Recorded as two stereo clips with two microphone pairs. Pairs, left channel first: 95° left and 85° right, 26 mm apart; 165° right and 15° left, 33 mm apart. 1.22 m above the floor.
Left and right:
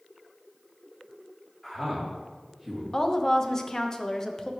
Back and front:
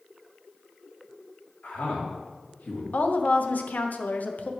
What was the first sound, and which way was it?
A man speaking, straight behind.